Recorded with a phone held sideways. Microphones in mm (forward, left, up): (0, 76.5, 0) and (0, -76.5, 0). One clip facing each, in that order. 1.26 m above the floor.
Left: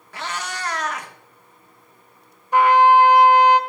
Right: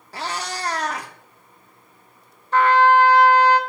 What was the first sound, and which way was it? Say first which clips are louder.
A cat meowing: right 1 dB; 35° right (ahead or behind).